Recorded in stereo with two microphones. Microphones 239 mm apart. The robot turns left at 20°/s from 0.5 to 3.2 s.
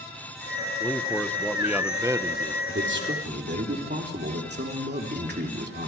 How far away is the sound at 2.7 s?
About 3 m.